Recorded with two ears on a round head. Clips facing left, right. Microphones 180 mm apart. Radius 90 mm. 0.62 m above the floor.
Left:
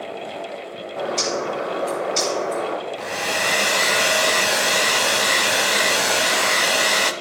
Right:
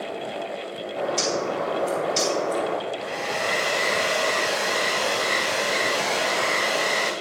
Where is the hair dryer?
60° left (ahead or behind), 0.9 m.